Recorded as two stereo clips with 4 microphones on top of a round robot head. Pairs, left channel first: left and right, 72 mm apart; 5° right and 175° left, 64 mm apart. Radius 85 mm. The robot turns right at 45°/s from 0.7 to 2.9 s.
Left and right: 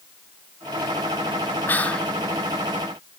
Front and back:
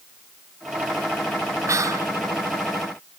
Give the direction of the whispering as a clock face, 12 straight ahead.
7 o'clock.